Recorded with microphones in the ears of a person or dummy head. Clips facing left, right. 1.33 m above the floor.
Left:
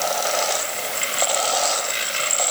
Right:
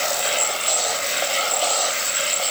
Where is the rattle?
No rattle in this recording.